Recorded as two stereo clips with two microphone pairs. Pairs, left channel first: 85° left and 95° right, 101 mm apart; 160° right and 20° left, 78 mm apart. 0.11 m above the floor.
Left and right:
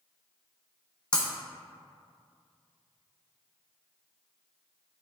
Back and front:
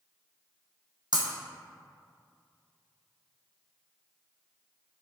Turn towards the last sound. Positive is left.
turn(degrees=0)